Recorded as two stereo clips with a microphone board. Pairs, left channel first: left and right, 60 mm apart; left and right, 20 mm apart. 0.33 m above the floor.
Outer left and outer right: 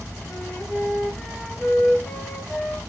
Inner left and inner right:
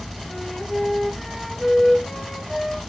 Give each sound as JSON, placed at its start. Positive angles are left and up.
{"t": 0.3, "sound": "a flute", "side_deg": 25, "distance_m": 1.2}